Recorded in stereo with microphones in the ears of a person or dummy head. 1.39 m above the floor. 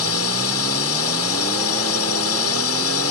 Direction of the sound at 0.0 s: 75° left (ahead or behind).